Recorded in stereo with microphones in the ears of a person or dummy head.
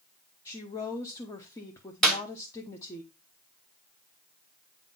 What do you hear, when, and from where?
0.5 s a woman speaking: 20° left (ahead or behind), 1.0 m
2.0 s a clap: 5° left (ahead or behind), 1.1 m